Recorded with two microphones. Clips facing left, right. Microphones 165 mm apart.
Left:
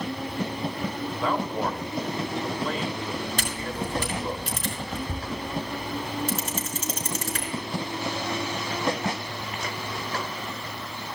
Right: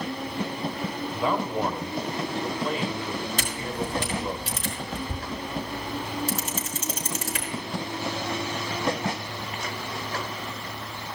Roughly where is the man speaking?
Centre.